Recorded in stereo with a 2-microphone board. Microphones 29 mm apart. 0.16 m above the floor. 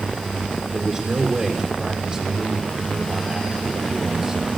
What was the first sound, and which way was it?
A man speaking, 15° right (ahead or behind).